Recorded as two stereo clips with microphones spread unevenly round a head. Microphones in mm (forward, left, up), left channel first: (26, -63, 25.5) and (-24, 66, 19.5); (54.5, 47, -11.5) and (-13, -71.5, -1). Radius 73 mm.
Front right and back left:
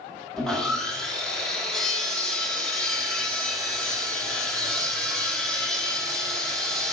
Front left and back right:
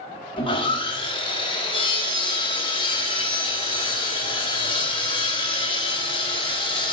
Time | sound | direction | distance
0.4 | sawing | 15° left | 1.5 m